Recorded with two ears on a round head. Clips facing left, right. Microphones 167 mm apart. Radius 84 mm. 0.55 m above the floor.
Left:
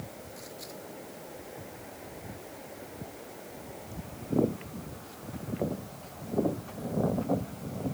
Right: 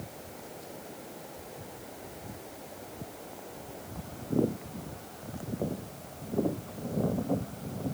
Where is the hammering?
I don't hear hammering.